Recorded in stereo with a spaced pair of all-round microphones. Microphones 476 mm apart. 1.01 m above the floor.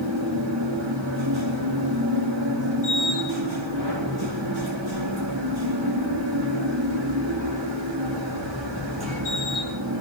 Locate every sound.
0.0 s a machine running: 60° right (ahead or behind), 2.5 m